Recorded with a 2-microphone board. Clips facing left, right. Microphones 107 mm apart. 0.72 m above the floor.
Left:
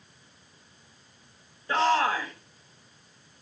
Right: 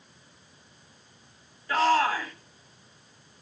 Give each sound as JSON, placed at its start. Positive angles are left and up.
{"t": 1.7, "sound": "a shout", "side_deg": 30, "distance_m": 3.5}